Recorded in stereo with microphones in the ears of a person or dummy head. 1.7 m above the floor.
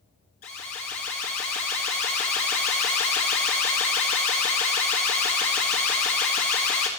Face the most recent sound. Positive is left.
turn(degrees=40)  # may be behind; listen again after turning